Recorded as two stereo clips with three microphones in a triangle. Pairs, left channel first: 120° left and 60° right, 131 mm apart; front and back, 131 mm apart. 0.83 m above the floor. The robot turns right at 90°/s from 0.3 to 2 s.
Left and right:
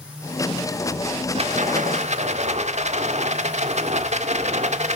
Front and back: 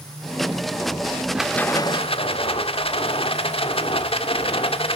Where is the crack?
I don't hear a crack.